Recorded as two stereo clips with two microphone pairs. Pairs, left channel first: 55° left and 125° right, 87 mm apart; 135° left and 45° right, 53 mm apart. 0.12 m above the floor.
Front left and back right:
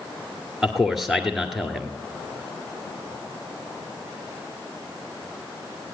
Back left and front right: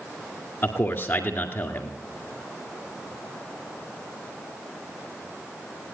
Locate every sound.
0.6 s a man speaking: 145° left, 1.8 m